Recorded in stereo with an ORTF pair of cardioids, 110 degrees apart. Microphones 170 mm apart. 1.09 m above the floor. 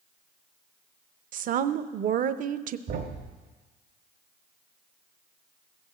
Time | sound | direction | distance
1.3 | a woman speaking | 55° right | 0.7 m
2.9 | a thud | 70° right | 1.7 m